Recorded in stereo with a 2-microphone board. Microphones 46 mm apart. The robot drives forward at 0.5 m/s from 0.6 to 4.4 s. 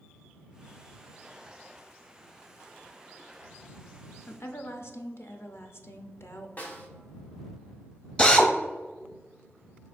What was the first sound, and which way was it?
A woman speaking, 55° left (ahead or behind).